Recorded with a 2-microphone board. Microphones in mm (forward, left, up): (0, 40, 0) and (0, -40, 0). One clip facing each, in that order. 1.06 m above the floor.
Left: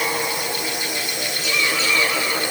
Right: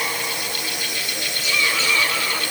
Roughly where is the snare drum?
No snare drum in this recording.